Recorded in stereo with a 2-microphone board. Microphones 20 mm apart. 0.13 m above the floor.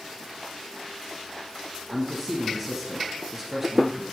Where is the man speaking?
15° right (ahead or behind), 1.6 m.